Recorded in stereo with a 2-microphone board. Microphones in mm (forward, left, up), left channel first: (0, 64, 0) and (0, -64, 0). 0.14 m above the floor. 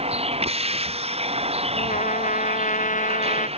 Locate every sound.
0.0 s a vehicle: 50° right (ahead or behind)
1.8 s a trumpet: 80° left